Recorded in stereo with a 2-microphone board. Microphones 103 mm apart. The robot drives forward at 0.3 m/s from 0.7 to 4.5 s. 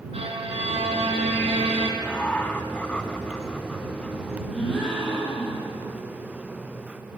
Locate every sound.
0.1 s a violin: 80° right, 2.5 m
2.0 s laughter: 15° left (ahead or behind), 1.3 m; by 4.2 s 10° left (ahead or behind), 1.6 m
4.5 s a gasp: 10° left (ahead or behind), 7.5 m